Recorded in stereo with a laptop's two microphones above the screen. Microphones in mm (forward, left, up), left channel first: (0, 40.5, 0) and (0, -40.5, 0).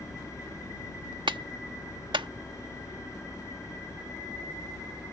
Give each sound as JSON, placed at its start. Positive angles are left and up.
{"t": 0.0, "sound": "a fan", "side_deg": 40}
{"t": 1.3, "sound": "a clap", "side_deg": -80}